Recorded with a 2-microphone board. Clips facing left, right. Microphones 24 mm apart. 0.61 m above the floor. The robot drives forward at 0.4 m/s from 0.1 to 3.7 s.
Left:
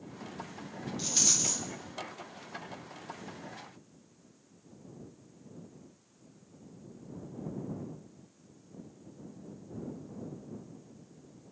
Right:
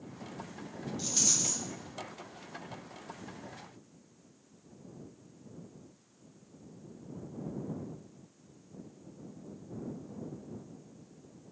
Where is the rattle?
20° left (ahead or behind), 0.5 m; by 1.6 s 25° left (ahead or behind), 0.5 m.